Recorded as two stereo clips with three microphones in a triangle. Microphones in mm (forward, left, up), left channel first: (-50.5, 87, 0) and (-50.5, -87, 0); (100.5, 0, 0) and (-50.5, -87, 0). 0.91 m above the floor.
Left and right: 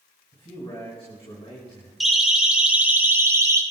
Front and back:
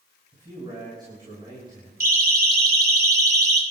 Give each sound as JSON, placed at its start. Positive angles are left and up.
{"t": 0.3, "sound": "a man speaking", "azimuth_deg": 145, "distance_m": 5.5}
{"t": 2.0, "sound": "a siren", "azimuth_deg": 180, "distance_m": 2.5}